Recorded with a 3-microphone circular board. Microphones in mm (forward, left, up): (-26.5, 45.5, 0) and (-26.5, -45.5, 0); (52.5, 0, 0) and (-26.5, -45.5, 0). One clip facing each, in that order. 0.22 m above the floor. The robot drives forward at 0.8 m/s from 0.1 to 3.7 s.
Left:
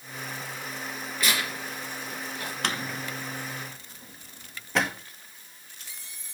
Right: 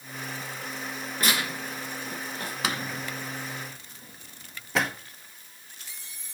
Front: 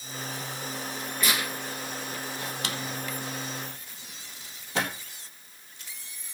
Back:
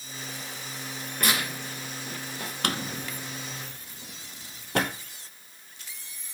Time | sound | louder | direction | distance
1.2 | tearing paper | right 1 dB, back 2 dB | 125° right | 4 m
2.6 | a drawer | even, back 7 dB | 175° right | 0.6 m